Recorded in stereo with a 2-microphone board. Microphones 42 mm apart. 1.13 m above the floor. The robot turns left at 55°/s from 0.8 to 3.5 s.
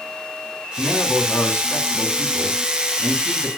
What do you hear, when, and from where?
0.8 s a man speaking: 160° left, 3 m; by 3.5 s 15° left, 3 m